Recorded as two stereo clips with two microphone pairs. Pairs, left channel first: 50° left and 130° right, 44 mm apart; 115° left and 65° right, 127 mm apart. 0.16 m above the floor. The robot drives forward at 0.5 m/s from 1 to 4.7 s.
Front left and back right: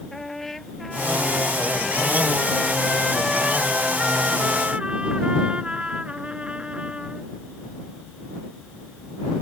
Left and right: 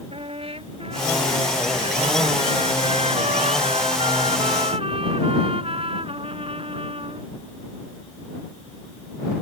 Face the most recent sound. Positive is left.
turn(degrees=-70)